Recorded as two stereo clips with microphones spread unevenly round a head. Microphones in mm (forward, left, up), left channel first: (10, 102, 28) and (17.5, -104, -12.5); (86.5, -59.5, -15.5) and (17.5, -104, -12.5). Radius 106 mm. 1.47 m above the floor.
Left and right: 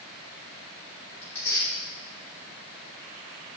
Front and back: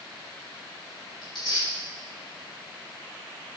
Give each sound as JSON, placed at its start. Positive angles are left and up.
{"t": 1.2, "sound": "tearing paper", "azimuth_deg": 15, "distance_m": 4.5}